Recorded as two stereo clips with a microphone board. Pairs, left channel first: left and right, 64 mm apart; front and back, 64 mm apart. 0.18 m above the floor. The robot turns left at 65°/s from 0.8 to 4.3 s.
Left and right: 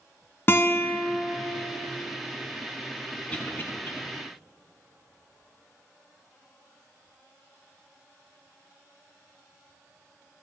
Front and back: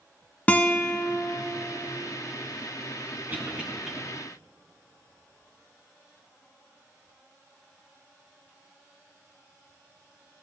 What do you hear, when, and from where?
0.5 s a guitar: 55° left, 1.2 m; by 1.4 s 20° left, 1.2 m
3.3 s a cough: 140° left, 1.8 m; by 3.9 s 100° left, 1.8 m